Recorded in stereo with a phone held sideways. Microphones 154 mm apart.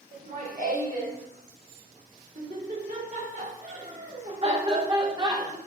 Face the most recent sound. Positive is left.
turn(degrees=-20)  # may be behind; listen again after turning